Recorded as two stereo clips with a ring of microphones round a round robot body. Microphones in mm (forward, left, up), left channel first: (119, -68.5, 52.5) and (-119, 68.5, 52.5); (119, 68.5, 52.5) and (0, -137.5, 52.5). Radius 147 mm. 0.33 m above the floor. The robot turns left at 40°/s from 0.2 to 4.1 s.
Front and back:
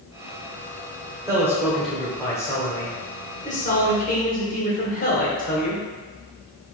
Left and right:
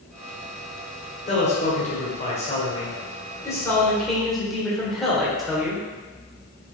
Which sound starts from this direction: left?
A man speaking, at 1.3 s.